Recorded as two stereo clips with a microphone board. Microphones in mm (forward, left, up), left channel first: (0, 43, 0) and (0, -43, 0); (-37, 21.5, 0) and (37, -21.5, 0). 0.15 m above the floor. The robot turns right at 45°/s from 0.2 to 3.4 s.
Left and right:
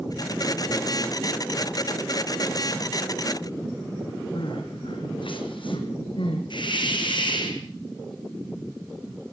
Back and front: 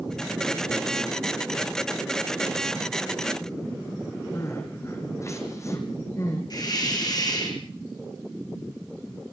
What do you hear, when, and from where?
4.3 s crying: 95° left, 3.5 m
6.5 s a hiss: 115° left, 4.5 m